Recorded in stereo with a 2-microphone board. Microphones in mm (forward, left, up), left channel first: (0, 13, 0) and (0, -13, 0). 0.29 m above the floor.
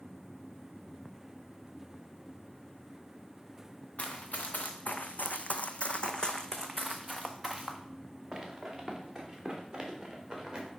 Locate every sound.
4.0 s running footsteps: 55° left (ahead or behind), 1.4 m; by 10.7 s 20° right (ahead or behind), 3.5 m